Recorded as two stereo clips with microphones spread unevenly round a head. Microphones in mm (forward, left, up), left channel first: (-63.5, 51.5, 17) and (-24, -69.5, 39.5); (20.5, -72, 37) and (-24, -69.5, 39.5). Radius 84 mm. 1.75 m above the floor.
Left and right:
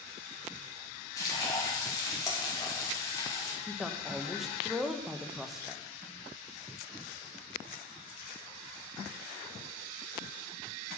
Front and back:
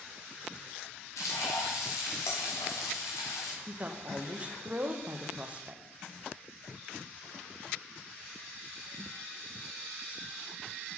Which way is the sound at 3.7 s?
145° right.